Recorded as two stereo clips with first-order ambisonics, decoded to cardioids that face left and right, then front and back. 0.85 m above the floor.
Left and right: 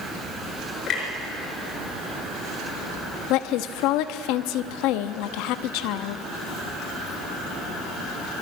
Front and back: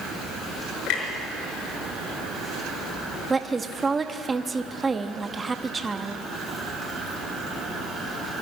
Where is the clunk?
30° left, 5.5 m.